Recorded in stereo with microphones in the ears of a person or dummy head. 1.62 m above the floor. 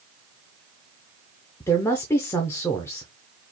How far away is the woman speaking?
About 0.5 m.